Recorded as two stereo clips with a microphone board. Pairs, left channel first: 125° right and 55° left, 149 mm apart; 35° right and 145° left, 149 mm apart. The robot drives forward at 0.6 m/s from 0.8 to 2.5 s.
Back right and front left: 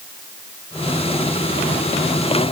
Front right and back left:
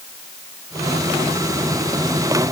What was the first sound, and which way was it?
Only background noise.